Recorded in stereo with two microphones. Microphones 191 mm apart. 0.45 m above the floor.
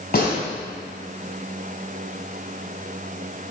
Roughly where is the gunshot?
Left.